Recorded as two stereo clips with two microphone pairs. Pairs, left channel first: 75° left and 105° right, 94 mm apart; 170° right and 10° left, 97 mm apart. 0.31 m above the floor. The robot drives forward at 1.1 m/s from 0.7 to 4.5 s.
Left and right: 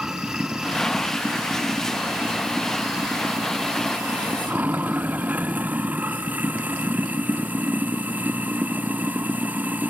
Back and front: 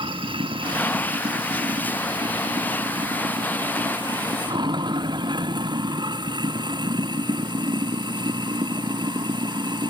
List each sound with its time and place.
0.0 s running water: 20° right; by 9.9 s 30° right